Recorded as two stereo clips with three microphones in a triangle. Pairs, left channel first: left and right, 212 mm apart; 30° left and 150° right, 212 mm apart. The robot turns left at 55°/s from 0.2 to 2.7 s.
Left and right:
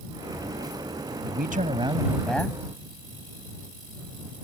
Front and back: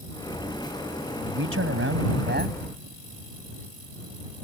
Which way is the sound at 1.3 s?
125° right.